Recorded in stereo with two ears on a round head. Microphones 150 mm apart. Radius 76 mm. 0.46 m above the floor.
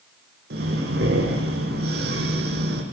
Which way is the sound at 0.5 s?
70° right (ahead or behind).